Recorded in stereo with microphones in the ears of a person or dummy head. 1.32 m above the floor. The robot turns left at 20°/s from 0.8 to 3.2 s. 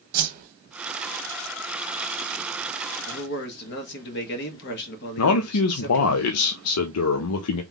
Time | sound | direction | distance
0.1 | a whoosh | 50° right (ahead or behind) | 0.9 m
3.1 | a man speaking | 60° left (ahead or behind) | 1.4 m
5.2 | a man speaking | 80° left | 0.6 m